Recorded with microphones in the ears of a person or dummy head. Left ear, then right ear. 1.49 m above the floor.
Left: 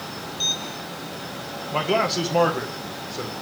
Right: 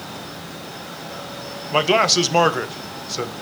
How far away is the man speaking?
About 1.2 m.